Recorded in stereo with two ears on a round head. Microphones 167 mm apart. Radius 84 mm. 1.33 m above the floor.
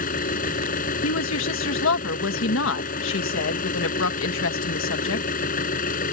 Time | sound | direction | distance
0.0 | an engine running | 45° left (ahead or behind) | ?
1.0 | a woman speaking | 75° left (ahead or behind) | ?